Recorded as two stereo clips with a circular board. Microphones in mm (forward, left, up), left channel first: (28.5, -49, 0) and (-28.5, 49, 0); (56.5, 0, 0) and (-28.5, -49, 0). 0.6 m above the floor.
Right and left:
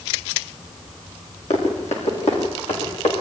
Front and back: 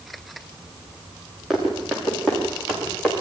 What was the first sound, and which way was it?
Running footsteps, 60° right.